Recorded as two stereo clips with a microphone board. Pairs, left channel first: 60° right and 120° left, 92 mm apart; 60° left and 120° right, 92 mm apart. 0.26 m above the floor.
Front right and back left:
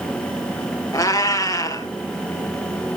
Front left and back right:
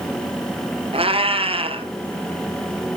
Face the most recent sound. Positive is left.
turn(degrees=-115)